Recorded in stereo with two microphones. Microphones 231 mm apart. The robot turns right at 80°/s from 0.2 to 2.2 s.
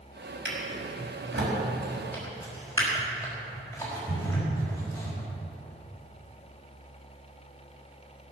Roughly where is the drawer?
Right.